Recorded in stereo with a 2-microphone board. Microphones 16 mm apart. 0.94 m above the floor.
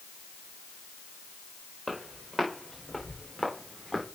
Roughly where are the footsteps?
Centre.